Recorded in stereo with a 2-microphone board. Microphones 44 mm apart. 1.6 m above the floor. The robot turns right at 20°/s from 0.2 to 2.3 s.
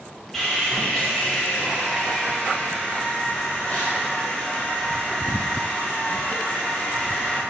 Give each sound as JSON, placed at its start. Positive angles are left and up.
{"t": 0.3, "sound": "sawing", "azimuth_deg": 5, "distance_m": 1.4}